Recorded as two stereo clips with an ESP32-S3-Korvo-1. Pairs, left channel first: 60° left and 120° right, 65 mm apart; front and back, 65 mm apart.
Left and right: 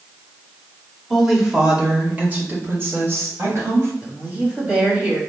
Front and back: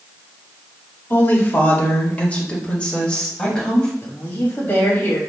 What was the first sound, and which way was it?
A woman speaking, 30° right.